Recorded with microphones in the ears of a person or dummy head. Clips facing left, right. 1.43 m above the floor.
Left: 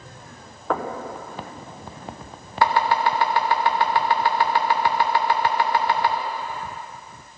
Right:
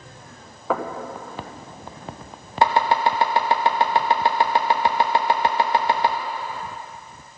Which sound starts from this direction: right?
Chopping, at 2.6 s.